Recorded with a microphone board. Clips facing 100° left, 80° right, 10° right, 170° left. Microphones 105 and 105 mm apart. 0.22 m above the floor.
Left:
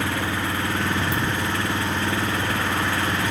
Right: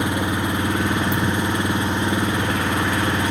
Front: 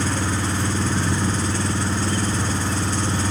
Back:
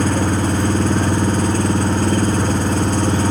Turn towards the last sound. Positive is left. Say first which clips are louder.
# right 3 dB, back 7 dB
turn(degrees=-150)